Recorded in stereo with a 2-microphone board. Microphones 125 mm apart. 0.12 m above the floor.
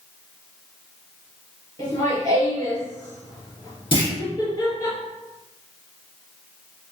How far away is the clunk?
About 1.5 m.